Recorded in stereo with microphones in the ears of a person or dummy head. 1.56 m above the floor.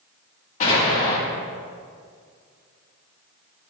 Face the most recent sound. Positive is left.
turn(degrees=45)  # may be behind; listen again after turning